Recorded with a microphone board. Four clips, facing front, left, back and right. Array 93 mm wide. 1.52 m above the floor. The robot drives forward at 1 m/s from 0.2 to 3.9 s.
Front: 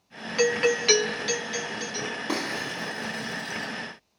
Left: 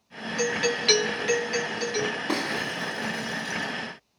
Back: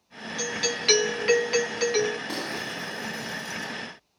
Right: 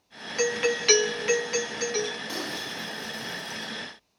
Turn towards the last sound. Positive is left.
turn(degrees=70)